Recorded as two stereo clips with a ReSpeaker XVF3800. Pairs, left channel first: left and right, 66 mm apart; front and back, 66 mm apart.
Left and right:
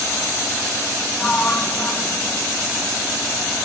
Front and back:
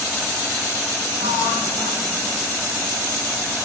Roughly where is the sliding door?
Behind.